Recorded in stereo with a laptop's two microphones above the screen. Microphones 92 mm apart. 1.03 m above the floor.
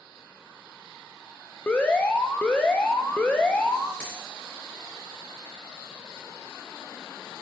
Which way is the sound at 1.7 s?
10° left (ahead or behind).